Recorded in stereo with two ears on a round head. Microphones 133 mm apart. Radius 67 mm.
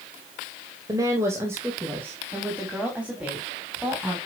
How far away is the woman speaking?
About 2.5 m.